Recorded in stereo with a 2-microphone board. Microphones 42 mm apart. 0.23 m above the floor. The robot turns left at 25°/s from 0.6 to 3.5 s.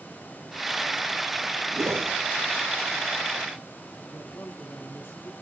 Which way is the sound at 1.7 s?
80° right.